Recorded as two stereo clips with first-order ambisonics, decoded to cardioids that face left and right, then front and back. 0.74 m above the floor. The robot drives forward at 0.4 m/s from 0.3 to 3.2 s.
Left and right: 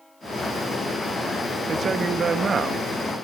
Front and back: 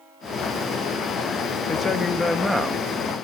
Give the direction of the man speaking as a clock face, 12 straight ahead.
1 o'clock.